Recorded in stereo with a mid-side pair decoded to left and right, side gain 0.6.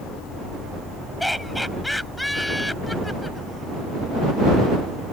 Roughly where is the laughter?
Ahead.